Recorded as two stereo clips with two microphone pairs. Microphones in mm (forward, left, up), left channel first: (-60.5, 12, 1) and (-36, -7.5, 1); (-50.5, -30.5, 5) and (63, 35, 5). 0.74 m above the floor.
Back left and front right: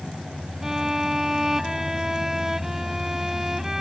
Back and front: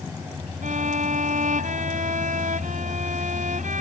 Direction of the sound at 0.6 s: 40° left.